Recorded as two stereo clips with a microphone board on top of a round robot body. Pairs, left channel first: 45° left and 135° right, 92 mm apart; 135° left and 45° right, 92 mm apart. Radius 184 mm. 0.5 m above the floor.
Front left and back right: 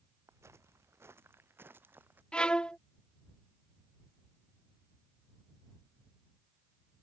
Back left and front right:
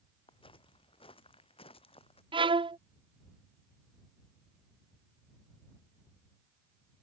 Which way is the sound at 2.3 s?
35° right.